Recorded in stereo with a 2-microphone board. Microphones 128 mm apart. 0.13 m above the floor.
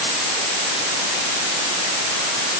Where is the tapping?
No tapping in this recording.